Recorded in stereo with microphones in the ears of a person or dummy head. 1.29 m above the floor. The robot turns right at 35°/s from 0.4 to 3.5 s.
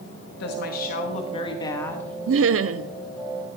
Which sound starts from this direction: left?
A woman speaking, at 0.4 s.